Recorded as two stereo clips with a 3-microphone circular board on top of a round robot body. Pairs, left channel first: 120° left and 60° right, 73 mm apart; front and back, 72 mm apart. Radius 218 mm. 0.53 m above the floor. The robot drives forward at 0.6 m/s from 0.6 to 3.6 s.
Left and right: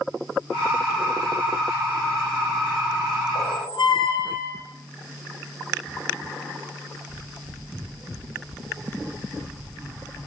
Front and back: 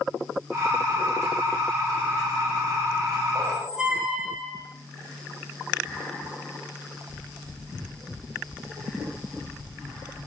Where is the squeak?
100° left, 8.5 m.